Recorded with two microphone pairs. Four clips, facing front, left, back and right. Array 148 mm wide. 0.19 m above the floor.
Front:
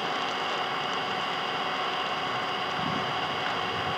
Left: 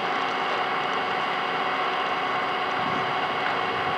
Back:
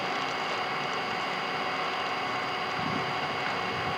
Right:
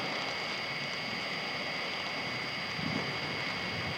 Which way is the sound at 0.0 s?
90° left.